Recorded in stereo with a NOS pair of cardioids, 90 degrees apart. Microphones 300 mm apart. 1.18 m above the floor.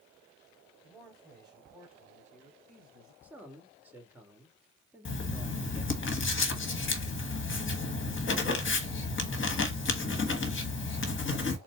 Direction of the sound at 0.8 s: 5° right.